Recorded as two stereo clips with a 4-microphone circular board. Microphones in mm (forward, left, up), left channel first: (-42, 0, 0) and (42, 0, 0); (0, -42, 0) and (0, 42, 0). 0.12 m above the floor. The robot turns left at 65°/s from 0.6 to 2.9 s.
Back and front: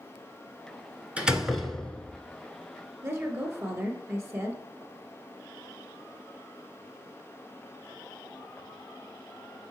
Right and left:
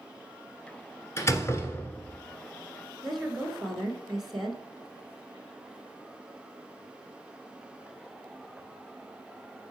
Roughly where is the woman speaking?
Ahead.